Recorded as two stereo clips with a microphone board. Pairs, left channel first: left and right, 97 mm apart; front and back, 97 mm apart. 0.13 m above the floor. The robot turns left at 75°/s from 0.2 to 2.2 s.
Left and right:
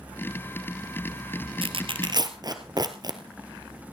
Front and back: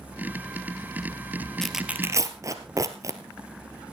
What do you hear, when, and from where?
1.6 s tearing paper: 85° right, 1.4 m; by 3.2 s 130° right, 1.4 m